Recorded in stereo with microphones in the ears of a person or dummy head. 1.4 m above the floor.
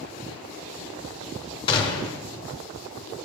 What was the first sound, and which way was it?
A gunshot, 25° left (ahead or behind).